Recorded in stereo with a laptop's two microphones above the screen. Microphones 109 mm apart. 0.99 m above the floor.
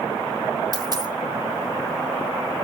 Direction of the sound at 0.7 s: 40° right (ahead or behind).